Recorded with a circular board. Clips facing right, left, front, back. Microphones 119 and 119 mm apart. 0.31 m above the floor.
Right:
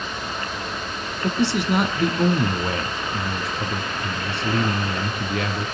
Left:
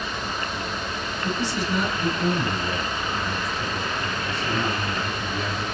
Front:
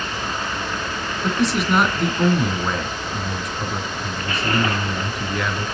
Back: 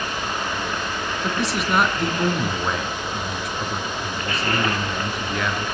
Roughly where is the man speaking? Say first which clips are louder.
Right 6 dB, front 5 dB; right.